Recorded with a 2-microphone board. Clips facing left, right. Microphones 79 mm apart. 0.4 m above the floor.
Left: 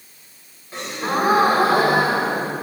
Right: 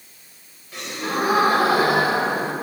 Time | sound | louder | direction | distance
0.7 | a gasp | left 3 dB | 35° left (ahead or behind) | 2 m